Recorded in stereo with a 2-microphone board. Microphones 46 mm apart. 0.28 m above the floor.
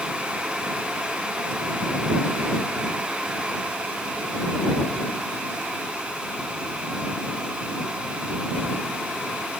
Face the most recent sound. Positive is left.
No sound to turn to.